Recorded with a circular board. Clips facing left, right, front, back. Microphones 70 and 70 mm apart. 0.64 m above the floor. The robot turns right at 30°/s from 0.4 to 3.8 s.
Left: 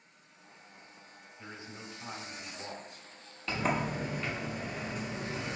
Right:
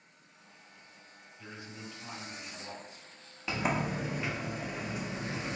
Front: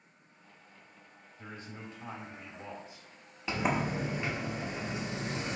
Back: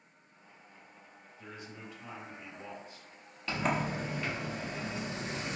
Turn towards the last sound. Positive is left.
turn(degrees=-25)